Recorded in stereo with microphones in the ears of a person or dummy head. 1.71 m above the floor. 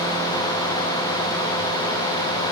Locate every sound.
Only background noise.